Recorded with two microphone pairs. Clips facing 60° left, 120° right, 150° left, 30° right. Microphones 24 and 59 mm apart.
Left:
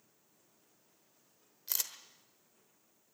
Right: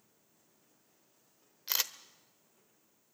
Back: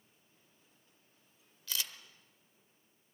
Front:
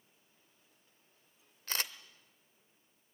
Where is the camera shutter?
75° right, 1.1 m.